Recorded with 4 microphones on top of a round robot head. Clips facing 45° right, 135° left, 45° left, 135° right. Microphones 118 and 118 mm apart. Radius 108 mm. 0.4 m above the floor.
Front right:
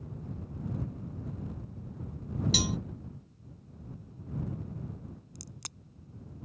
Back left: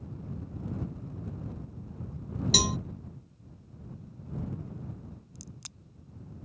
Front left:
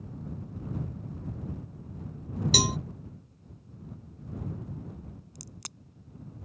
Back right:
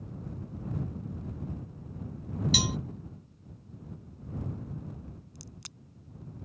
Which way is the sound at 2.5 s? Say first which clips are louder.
Back left 5 dB, front left 5 dB; 90° left.